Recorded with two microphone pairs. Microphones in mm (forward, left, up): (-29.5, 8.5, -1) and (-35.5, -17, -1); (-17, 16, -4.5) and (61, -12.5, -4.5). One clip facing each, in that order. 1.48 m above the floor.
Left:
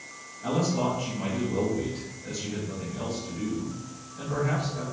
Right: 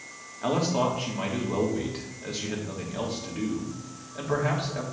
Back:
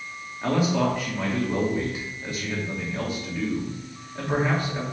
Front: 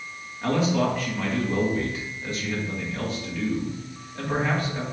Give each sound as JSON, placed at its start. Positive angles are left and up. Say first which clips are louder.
{"t": 0.4, "sound": "a man speaking", "louder": "right 1 dB, even", "azimuth_deg": -115, "distance_m": 2.0}